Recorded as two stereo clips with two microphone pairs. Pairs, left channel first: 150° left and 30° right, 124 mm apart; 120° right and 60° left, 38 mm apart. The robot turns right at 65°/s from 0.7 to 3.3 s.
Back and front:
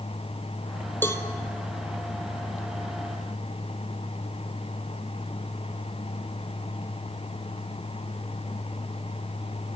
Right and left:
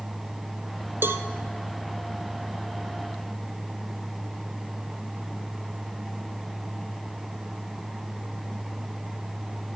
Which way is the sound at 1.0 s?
75° left.